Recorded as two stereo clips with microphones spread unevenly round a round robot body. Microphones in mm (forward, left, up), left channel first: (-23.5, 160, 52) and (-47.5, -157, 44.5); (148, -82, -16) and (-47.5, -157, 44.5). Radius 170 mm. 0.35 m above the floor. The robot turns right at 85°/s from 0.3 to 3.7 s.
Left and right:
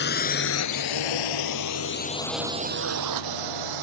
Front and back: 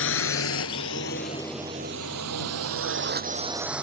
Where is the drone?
25° left; by 3.8 s 75° right.